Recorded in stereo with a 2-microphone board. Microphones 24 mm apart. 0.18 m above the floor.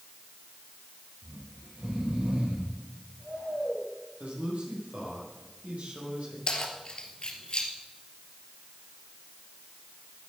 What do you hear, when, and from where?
1.2 s snoring: 70° right (ahead or behind), 5.5 m
4.2 s a man speaking: 75° right (ahead or behind), 6.5 m
6.5 s keys jangling: 40° left (ahead or behind), 2.5 m